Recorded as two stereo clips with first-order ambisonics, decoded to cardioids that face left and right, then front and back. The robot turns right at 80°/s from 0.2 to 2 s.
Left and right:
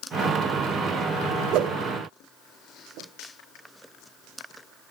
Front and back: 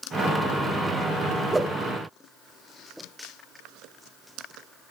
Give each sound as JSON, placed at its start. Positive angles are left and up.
{"t": 1.5, "sound": "a whoosh", "azimuth_deg": -105, "distance_m": 0.6}